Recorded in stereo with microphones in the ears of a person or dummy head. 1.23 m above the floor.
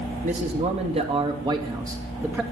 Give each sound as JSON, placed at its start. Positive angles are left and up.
{"t": 0.2, "sound": "a man speaking", "side_deg": -35, "distance_m": 2.5}